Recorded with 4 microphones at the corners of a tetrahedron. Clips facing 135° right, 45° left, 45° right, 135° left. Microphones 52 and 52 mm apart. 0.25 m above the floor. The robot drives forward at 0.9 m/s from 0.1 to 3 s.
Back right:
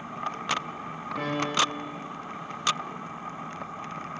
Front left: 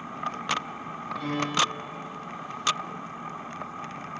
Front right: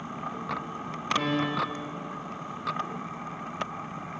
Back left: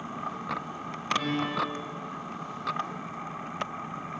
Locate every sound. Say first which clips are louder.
1.2 s a piano: even, front right 2 dB; 95° right, 8.5 m; by 1.9 s 100° right, 8.5 m